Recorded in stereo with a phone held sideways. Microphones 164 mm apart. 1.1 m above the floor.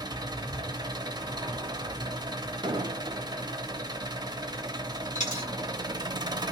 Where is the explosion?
30° right (ahead or behind), 0.8 m.